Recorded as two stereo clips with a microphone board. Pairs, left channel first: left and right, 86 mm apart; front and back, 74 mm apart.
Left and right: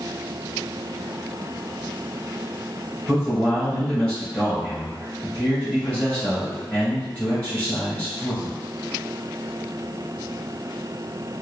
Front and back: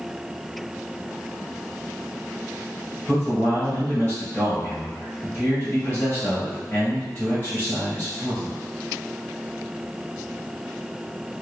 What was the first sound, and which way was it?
A man speaking, 30° left.